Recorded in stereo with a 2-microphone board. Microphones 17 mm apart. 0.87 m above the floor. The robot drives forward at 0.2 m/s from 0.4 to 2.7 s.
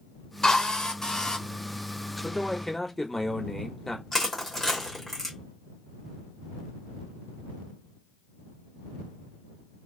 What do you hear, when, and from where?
0.4 s a drill: 60° left (ahead or behind), 1.1 m; by 1.4 s 50° left (ahead or behind), 1.2 m
2.2 s a man speaking: 30° left (ahead or behind), 1.1 m
4.1 s crushing: 25° left (ahead or behind), 1.9 m